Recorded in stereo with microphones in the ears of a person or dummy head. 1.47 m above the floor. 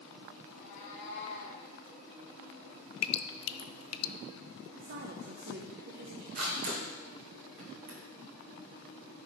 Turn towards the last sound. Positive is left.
turn(degrees=-55)  # may be behind; listen again after turning